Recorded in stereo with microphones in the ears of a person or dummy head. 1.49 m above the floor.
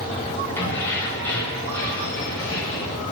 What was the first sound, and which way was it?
Keys jangling, 20° left (ahead or behind).